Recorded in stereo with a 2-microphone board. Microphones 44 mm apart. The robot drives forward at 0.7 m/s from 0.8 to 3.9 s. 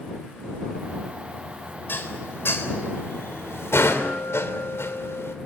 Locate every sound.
1.9 s dishes clattering: 55° left (ahead or behind), 3.5 m; by 5.3 s 80° left, 3 m